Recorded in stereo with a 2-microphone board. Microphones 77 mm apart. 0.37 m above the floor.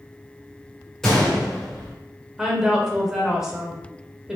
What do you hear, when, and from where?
1.0 s a gunshot: 5° left (ahead or behind), 1.4 m
2.4 s a woman speaking: 5° right (ahead or behind), 0.9 m